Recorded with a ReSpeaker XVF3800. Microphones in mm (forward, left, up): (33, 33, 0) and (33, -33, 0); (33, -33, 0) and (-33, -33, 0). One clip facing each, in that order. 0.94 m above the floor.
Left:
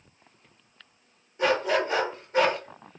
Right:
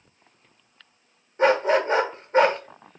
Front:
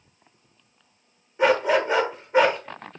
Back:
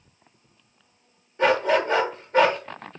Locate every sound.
1.4 s a dog barking: 70° right, 0.7 m